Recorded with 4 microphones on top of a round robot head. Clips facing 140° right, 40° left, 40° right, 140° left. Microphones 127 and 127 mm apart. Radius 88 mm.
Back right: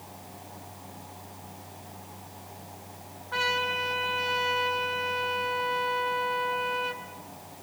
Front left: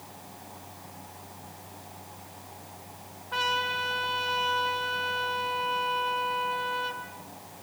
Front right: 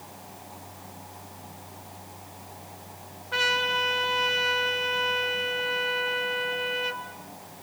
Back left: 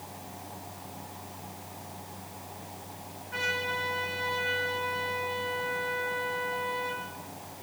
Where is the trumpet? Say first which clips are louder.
Even, front right 6 dB; 40° right, 3 m.